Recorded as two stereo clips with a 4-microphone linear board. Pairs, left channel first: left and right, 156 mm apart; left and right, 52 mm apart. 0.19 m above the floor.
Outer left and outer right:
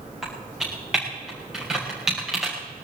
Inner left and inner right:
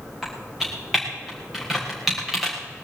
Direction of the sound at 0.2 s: 5° right (ahead or behind).